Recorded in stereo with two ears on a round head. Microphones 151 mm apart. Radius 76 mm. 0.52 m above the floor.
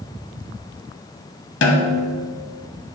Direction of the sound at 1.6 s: 75° left (ahead or behind).